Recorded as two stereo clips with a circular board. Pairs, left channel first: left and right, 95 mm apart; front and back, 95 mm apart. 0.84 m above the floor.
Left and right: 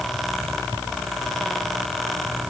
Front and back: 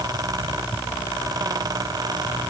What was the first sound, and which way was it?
Only background noise.